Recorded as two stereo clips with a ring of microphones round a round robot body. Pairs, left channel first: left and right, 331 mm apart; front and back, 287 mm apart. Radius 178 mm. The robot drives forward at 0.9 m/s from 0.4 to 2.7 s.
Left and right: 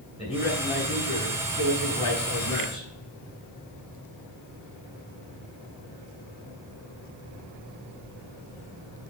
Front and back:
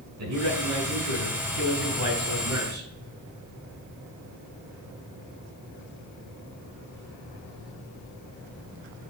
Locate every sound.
0.2 s a man speaking: 160° left, 3 m; by 2.9 s 170° left, 5 m